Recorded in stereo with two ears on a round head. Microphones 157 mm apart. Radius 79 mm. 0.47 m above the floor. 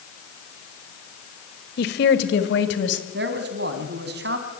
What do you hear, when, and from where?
1.8 s a woman speaking: 60° left (ahead or behind), 2 m; by 3.0 s 75° left (ahead or behind), 3.5 m
3.1 s a man speaking: 65° right (ahead or behind), 3.5 m